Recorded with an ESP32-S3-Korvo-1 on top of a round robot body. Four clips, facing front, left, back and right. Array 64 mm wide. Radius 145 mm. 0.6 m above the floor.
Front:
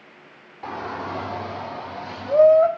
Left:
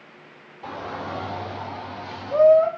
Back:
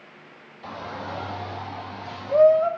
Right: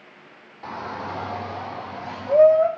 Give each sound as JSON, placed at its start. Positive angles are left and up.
{"t": 0.6, "sound": "a shout", "azimuth_deg": -15, "distance_m": 2.5}